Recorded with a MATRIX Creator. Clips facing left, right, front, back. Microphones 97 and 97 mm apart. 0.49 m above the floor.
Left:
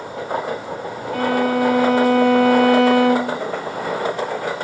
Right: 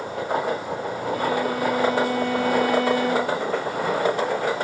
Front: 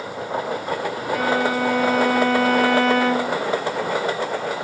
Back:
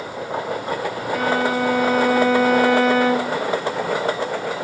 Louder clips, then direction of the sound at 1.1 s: Left 7 dB, back 1 dB; 90° left.